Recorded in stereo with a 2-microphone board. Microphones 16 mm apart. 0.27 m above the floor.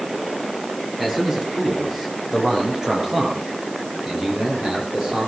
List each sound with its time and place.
1.0 s a man speaking: 20° right (ahead or behind), 6.5 m; by 5.3 s 45° right (ahead or behind), 10 m